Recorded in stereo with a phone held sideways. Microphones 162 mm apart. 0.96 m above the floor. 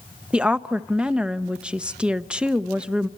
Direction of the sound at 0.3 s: 5° right (ahead or behind).